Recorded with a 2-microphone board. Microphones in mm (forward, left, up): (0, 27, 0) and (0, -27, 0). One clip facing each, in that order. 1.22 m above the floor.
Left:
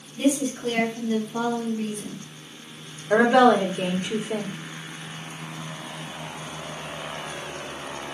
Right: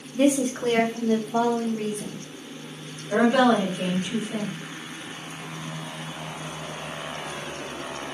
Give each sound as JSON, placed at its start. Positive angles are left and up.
{"t": 0.1, "sound": "a woman speaking", "side_deg": -55, "distance_m": 1.3}
{"t": 3.1, "sound": "a woman speaking", "side_deg": 70, "distance_m": 1.4}